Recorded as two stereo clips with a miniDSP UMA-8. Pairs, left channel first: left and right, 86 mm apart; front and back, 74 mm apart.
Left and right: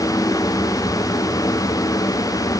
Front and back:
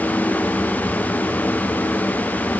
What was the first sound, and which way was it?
Only background noise.